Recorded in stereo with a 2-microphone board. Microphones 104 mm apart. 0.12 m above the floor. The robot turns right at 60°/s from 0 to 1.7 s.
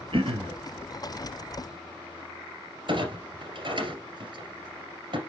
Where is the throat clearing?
60° right (ahead or behind), 1.1 m.